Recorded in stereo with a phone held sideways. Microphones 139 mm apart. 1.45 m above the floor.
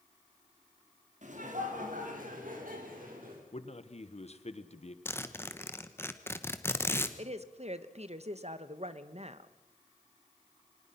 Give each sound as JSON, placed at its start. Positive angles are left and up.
{"t": 1.2, "sound": "laughter", "side_deg": -60, "distance_m": 4.0}
{"t": 3.5, "sound": "a man speaking", "side_deg": 50, "distance_m": 1.3}
{"t": 5.0, "sound": "a zipper", "side_deg": 15, "distance_m": 1.2}
{"t": 7.2, "sound": "a woman speaking", "side_deg": -50, "distance_m": 1.2}